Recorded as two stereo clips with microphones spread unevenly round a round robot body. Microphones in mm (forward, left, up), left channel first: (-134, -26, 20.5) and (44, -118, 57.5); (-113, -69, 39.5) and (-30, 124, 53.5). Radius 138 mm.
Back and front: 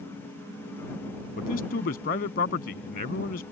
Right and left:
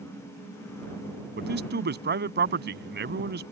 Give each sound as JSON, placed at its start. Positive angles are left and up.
{"t": 1.4, "sound": "a man speaking", "azimuth_deg": 105}